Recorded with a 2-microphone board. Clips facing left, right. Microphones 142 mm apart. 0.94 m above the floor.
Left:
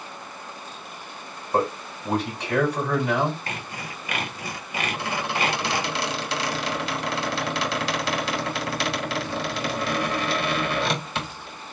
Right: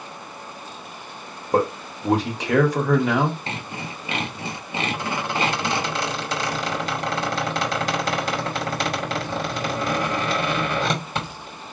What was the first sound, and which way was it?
A man speaking, 85° right.